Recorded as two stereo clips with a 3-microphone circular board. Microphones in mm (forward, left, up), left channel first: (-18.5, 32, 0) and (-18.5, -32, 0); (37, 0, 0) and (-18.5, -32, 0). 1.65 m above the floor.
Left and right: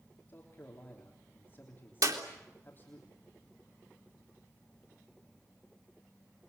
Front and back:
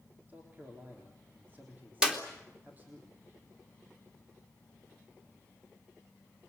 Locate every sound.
0.3 s a man speaking: 150° left, 3.5 m
2.0 s a clap: 70° right, 3 m